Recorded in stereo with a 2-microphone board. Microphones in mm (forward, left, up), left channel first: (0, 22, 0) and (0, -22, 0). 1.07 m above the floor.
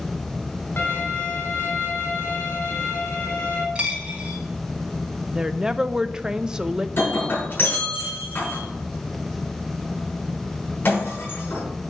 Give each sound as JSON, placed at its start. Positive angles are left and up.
{"t": 0.8, "sound": "a violin", "side_deg": 55, "distance_m": 3.0}
{"t": 3.8, "sound": "a dropped coin", "side_deg": -20, "distance_m": 3.5}
{"t": 5.3, "sound": "a woman speaking", "side_deg": -15, "distance_m": 0.5}
{"t": 7.0, "sound": "breaking glass", "side_deg": 50, "distance_m": 6.0}